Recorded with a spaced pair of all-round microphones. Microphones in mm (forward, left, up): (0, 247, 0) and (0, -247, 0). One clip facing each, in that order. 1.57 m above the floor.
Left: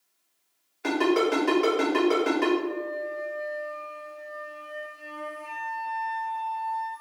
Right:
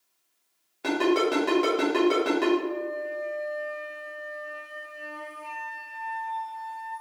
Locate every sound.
0.8 s a ringtone: 55° right (ahead or behind), 1.2 m
2.6 s a flute: 50° right (ahead or behind), 1.1 m